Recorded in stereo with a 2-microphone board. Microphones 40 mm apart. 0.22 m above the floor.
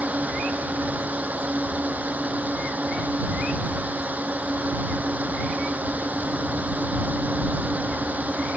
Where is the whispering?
I don't hear whispering.